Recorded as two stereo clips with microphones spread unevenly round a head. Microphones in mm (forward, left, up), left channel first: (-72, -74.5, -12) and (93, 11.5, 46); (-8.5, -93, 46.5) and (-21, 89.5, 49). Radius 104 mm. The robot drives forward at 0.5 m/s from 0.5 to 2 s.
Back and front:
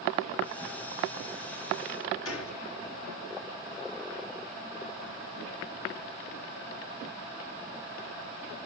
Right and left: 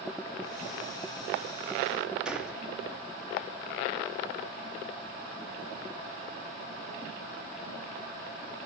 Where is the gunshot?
Straight behind, 2.5 m.